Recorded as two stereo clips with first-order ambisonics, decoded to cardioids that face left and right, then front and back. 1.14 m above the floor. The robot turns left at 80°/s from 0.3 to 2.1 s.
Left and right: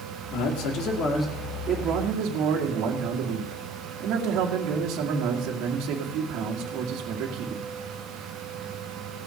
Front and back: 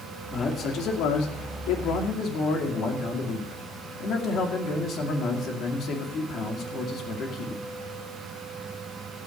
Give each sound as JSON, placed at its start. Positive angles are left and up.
{"t": 0.3, "sound": "a man speaking", "azimuth_deg": 90, "distance_m": 2.0}